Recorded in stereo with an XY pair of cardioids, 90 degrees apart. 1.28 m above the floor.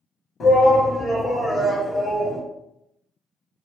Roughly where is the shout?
Ahead left.